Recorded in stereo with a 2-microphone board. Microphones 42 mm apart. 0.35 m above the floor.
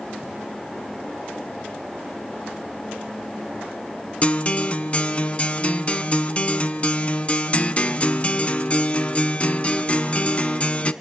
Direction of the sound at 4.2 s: 30° left (ahead or behind).